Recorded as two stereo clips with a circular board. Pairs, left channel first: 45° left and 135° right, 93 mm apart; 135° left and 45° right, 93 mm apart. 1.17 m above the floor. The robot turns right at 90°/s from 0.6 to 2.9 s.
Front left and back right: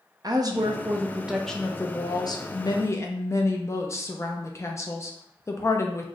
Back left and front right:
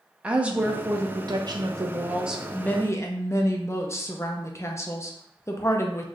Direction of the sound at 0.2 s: 120° right.